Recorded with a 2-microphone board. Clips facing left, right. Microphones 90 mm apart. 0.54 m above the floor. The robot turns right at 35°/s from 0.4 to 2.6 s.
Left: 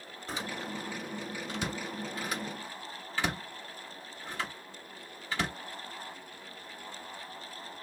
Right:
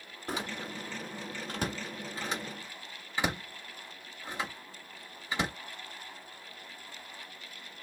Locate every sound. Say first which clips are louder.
0.3 s a door slam: right 1 dB; 55° right (ahead or behind), 1.3 m; by 5.5 s 20° right (ahead or behind), 1.3 m